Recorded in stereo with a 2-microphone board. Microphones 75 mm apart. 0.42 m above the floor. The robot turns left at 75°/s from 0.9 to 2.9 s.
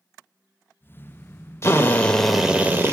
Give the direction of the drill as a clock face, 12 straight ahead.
10 o'clock.